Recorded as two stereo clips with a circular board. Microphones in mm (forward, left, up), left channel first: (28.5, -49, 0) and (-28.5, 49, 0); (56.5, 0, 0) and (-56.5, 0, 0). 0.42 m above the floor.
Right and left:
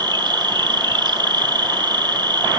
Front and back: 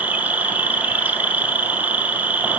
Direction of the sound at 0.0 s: 115° left.